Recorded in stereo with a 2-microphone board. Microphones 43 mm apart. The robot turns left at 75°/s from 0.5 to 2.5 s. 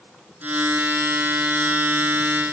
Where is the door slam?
No door slam in this recording.